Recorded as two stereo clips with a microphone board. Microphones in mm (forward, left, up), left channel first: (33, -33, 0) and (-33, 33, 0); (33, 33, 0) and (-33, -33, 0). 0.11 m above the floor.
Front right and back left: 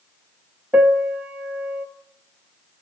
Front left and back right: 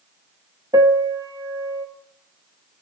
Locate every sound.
0.7 s a piano: 155° right, 1.2 m